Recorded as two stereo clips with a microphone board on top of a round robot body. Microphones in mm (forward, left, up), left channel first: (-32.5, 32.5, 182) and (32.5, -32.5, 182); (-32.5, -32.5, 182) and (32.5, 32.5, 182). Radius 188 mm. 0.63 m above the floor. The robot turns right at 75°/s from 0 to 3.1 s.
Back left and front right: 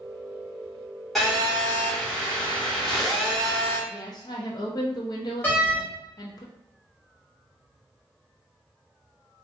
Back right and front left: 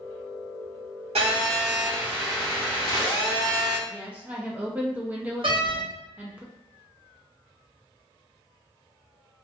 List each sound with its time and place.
1.1 s a phone buzzing: 45° left, 0.5 m; by 3.8 s 170° right, 0.5 m
3.9 s a woman speaking: 115° left, 0.7 m
5.4 s a door slam: 65° left, 1.1 m